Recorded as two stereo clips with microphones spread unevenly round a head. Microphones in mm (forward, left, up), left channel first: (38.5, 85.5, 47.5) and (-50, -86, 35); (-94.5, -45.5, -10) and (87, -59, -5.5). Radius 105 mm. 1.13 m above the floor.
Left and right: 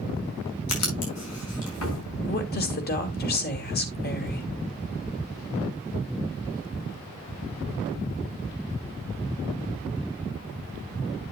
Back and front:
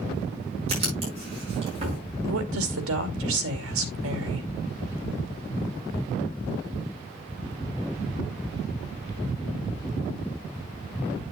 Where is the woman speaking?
20° left, 2.5 m.